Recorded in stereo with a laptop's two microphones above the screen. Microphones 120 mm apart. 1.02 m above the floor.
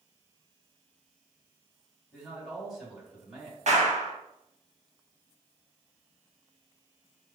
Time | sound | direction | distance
2.1 | a man speaking | 5° right (ahead or behind) | 1.9 m
3.7 | a clap | 70° right (ahead or behind) | 1.0 m